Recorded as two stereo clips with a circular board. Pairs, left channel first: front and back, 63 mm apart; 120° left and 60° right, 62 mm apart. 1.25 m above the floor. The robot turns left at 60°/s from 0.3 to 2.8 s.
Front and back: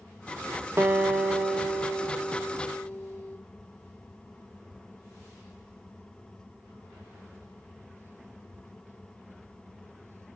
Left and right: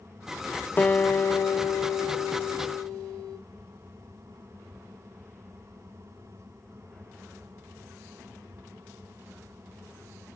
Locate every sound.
0.8 s a guitar: 170° left, 0.7 m; by 3.4 s 45° left, 0.7 m